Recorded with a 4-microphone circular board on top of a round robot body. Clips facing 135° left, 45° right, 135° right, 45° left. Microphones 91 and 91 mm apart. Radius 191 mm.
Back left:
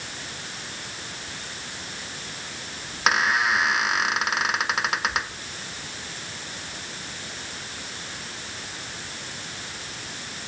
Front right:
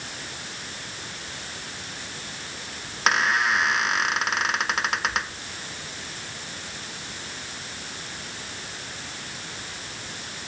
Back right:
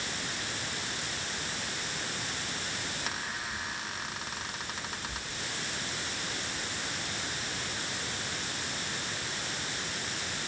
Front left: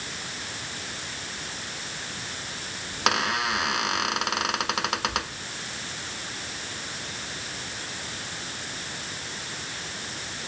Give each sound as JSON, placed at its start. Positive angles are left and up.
{"t": 2.9, "sound": "a squeak", "azimuth_deg": 50}